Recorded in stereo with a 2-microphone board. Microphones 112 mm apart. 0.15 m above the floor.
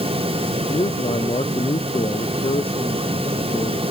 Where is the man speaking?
60° left (ahead or behind).